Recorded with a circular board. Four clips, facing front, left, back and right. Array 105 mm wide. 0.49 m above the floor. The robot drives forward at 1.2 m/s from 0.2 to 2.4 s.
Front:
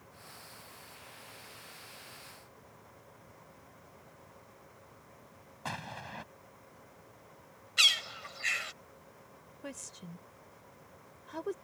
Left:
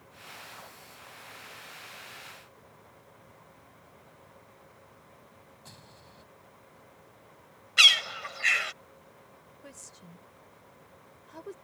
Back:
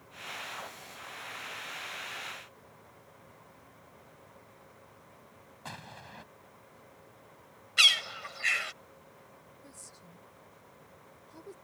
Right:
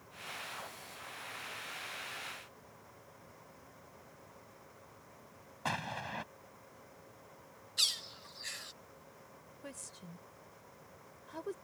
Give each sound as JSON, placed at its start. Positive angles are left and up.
{"t": 5.7, "sound": "an explosion", "azimuth_deg": -70}
{"t": 7.8, "sound": "a bird", "azimuth_deg": 105}
{"t": 9.6, "sound": "a woman speaking", "azimuth_deg": -10}